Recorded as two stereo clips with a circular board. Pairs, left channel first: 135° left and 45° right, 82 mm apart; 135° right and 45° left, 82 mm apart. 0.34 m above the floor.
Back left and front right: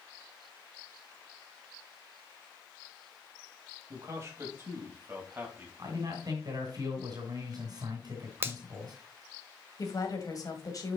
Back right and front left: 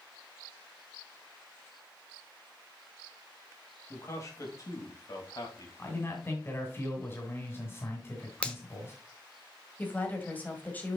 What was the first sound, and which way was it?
A man speaking, 90° right.